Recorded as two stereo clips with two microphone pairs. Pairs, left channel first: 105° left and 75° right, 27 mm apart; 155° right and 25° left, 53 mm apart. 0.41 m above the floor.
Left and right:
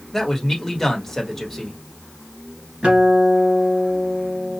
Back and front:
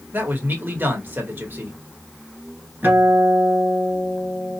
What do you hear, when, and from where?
0.1 s a man speaking: 25° left, 1.4 m
2.8 s a guitar: 30° right, 2 m